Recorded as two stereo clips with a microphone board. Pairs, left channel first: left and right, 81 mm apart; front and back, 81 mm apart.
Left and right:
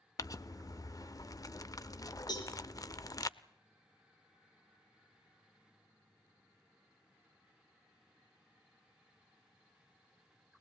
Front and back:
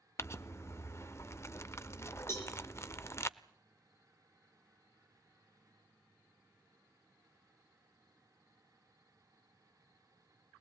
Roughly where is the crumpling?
Ahead left.